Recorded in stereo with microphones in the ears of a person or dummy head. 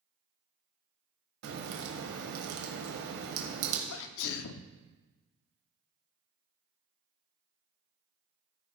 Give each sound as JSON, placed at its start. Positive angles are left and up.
{"t": 1.4, "sound": "a crack", "side_deg": -65, "distance_m": 1.3}
{"t": 3.9, "sound": "a sneeze", "side_deg": 75, "distance_m": 0.5}